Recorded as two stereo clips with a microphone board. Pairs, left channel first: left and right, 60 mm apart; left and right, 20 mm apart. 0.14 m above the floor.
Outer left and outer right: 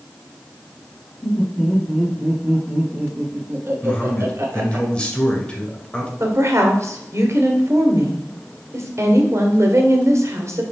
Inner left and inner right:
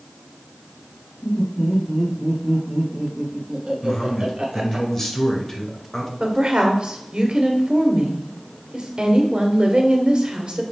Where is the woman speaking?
50° right (ahead or behind), 1.9 m.